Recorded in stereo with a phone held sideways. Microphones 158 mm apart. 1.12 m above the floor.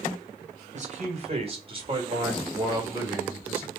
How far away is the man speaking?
About 4.5 m.